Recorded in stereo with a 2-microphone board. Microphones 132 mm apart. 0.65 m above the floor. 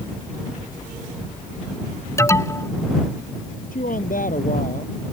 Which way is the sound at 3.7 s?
75° left (ahead or behind).